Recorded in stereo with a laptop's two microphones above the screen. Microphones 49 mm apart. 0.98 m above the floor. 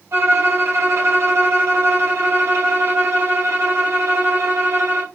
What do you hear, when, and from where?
0.1 s a violin: 75° right (ahead or behind), 0.9 m